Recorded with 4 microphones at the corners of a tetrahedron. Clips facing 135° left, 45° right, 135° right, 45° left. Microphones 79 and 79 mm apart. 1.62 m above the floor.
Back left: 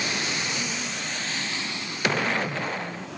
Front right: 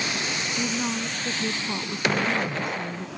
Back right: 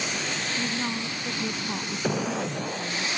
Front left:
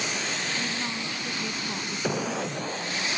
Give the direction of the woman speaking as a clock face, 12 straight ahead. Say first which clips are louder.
Front right 5 dB, back right 2 dB; 2 o'clock.